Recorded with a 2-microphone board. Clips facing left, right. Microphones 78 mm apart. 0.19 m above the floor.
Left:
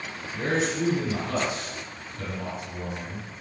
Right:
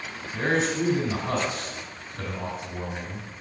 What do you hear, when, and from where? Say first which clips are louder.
0.3 s a man speaking: right 2 dB; 50° right (ahead or behind), 3 m